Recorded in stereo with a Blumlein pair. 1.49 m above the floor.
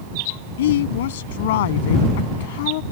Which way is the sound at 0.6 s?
60° left.